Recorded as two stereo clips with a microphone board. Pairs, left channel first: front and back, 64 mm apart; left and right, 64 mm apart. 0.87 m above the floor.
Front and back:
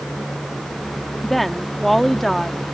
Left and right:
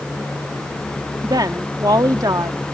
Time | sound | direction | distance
1.2 | a woman speaking | 90° right | ?